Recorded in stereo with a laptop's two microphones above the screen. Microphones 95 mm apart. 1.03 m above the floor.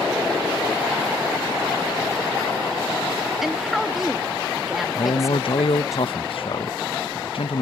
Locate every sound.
3.4 s a woman speaking: 5° right (ahead or behind)
5.0 s a man speaking: 70° left (ahead or behind)